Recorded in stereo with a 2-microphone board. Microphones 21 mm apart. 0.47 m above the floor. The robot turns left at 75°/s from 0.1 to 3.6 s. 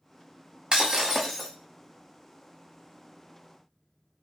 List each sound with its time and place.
0.7 s breaking glass: 135° right, 0.6 m; by 1.5 s 165° left, 0.6 m